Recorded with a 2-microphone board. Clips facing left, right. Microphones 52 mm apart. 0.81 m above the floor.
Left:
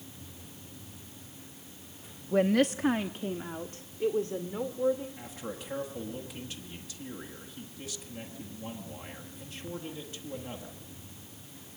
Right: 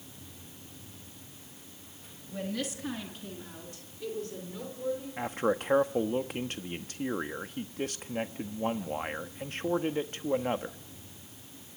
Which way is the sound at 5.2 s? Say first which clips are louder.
Right 11 dB; 50° right (ahead or behind).